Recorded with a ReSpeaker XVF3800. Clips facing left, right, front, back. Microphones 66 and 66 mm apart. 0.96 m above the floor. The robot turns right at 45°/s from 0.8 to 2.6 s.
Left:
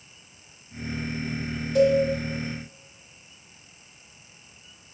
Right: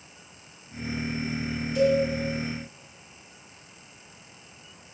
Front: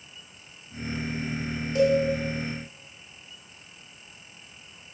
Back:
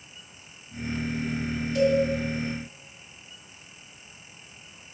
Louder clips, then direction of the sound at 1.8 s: Left 3 dB, front 1 dB; 55° left.